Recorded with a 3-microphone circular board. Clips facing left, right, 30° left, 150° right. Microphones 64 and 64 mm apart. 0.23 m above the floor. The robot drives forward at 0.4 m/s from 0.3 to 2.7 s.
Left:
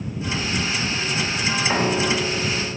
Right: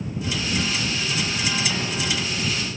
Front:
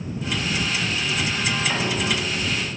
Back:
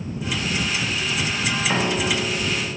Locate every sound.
1.7 s a piano: 135° left; by 2.8 s 140° left